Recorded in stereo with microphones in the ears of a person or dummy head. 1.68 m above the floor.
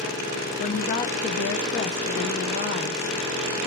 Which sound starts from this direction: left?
A woman speaking, at 0.6 s.